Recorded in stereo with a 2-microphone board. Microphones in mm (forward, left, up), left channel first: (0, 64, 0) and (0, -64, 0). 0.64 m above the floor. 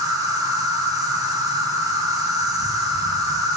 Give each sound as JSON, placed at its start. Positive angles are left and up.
{"t": 0.0, "sound": "an insect", "side_deg": -30, "distance_m": 1.6}